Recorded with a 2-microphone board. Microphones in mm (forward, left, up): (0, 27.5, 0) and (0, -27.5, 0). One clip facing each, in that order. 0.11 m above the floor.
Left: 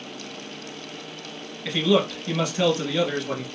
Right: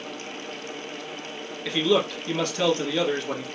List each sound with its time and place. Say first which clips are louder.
1.6 s a man speaking: left 1 dB; 5° left (ahead or behind), 1.4 m